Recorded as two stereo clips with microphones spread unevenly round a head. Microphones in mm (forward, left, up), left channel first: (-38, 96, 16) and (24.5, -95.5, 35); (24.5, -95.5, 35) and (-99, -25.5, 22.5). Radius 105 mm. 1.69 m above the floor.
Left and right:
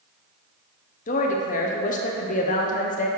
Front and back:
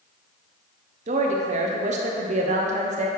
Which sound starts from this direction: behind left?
A woman speaking, at 1.1 s.